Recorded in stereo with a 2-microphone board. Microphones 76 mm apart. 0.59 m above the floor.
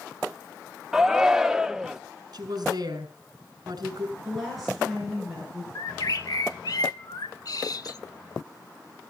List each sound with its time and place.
0.9 s a shout: 5° right (ahead or behind), 0.8 m
2.3 s a woman speaking: 55° right (ahead or behind), 6 m
4.2 s a woman speaking: centre (ahead or behind), 7.5 m
5.8 s a bird: 55° left (ahead or behind), 1.1 m